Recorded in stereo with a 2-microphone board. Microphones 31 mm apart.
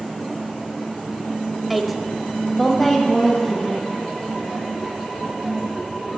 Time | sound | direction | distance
1.7 | a woman speaking | 5° right (ahead or behind) | 1.1 m